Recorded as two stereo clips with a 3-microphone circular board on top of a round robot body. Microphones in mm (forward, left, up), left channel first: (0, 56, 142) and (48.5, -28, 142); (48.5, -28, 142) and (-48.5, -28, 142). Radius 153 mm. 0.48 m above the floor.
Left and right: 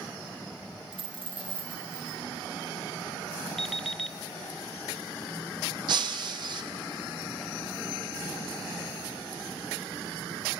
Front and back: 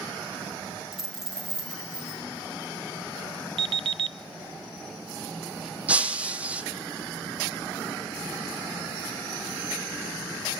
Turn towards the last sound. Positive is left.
turn(degrees=-105)